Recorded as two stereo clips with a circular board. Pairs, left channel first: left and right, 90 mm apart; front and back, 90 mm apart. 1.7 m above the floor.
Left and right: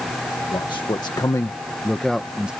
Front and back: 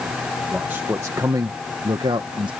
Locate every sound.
0.5 s a man speaking: 110° left; by 2.5 s 170° right